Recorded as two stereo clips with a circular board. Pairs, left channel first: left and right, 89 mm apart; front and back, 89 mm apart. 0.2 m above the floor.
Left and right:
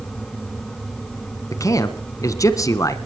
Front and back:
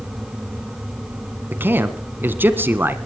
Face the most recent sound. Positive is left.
turn(degrees=120)